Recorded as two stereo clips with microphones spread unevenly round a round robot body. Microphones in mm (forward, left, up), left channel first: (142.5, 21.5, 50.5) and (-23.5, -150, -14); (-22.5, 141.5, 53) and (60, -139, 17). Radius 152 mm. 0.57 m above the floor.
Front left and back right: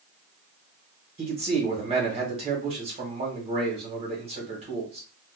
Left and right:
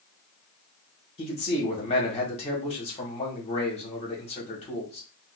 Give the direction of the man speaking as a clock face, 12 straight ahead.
6 o'clock.